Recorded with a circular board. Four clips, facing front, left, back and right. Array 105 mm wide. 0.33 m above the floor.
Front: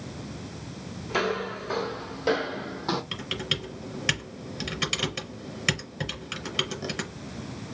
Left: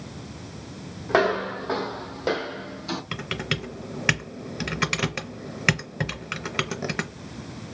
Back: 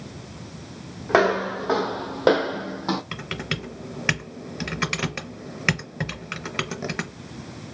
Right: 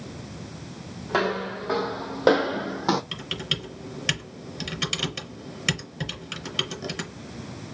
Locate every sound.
1.1 s footsteps: 155° left, 1.0 m; by 3.0 s 100° right, 0.9 m
3.1 s typing on a keyboard: 125° left, 0.6 m